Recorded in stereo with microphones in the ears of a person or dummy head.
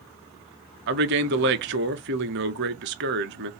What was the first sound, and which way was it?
A man speaking, 55° right (ahead or behind).